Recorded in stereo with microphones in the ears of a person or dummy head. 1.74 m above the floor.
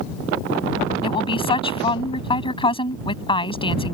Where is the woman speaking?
25° left (ahead or behind).